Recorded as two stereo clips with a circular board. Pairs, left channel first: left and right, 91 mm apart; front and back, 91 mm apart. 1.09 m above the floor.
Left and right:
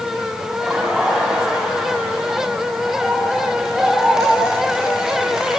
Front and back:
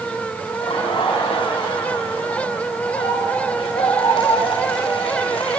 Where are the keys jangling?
I don't hear keys jangling.